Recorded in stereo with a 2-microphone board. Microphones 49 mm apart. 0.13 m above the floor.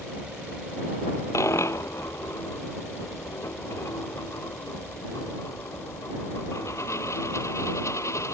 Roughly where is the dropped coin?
Left.